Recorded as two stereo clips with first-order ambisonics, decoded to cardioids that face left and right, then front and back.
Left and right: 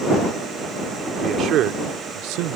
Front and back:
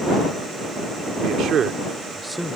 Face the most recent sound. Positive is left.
turn(degrees=-85)